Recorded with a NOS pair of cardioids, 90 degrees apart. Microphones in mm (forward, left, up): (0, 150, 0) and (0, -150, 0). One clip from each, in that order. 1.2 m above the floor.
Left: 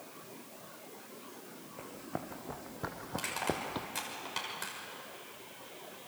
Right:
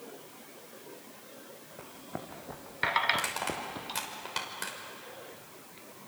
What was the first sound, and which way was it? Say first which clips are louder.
Running footsteps: left 1 dB; 5° left.